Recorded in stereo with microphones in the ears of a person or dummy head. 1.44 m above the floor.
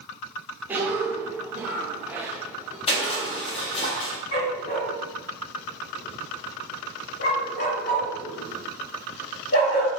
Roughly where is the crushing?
Left.